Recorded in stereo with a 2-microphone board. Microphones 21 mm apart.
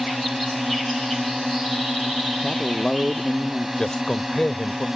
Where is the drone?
15° right (ahead or behind).